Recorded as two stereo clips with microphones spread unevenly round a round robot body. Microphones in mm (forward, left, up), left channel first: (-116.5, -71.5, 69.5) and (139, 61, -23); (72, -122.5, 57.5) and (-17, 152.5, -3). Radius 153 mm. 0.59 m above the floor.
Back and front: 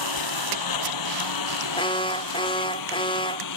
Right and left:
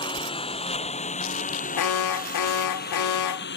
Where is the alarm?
65° right.